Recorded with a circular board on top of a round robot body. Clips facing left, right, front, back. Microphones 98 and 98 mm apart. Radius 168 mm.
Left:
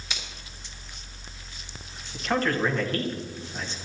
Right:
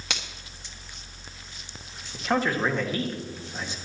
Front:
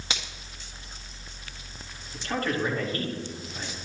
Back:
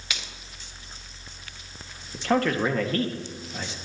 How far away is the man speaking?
About 1.9 m.